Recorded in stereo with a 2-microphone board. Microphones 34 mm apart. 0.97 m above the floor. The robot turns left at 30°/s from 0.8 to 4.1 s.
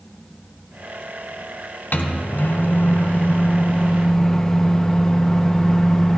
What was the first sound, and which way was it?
A microwave, 85° left.